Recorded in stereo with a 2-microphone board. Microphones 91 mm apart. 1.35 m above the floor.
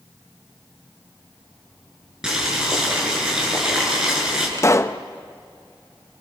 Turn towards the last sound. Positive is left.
turn(degrees=35)  # may be behind; listen again after turning